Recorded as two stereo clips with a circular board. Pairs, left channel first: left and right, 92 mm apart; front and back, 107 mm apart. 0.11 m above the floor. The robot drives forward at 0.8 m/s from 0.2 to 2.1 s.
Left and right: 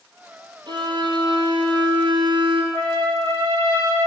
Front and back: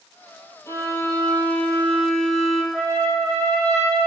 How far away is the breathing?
No breathing in this recording.